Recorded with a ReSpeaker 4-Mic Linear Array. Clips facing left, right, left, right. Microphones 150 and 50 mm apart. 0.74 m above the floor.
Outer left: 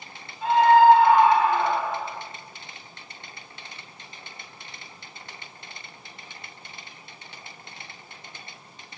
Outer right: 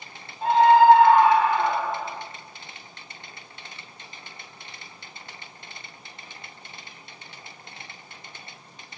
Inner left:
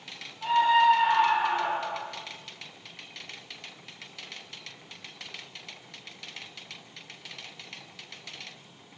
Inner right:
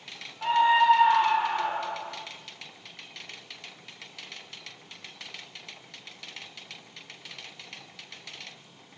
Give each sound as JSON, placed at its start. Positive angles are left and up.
{"t": 0.4, "sound": "a scream", "side_deg": -40, "distance_m": 0.9}